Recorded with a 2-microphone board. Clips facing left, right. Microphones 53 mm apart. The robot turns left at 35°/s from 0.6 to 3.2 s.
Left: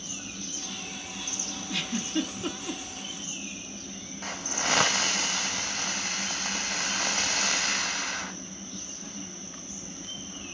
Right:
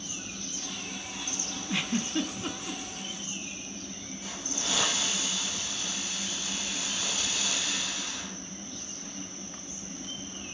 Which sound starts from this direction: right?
A giggle, at 1.7 s.